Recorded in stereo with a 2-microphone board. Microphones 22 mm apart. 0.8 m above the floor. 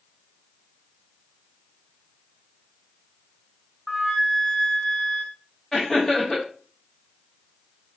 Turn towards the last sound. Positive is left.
turn(degrees=15)  # may be behind; listen again after turning